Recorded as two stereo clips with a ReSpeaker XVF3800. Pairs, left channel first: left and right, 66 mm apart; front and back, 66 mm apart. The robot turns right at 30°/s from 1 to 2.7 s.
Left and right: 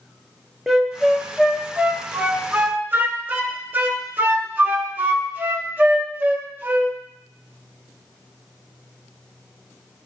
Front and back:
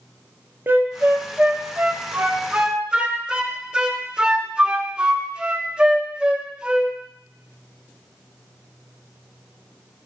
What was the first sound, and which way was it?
A flute, 170° right.